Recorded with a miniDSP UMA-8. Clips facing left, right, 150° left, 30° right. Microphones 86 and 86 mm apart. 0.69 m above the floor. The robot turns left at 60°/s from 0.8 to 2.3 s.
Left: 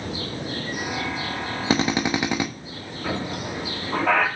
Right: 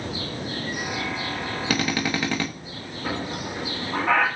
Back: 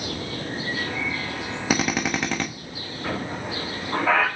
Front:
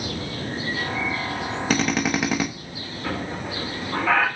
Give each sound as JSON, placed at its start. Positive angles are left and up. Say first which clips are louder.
{"t": 1.7, "sound": "a drill", "louder": "left 4 dB, front 1 dB", "azimuth_deg": 80, "distance_m": 0.8}
{"t": 3.0, "sound": "a squeak", "louder": "left 1 dB, even", "azimuth_deg": 85, "distance_m": 3.5}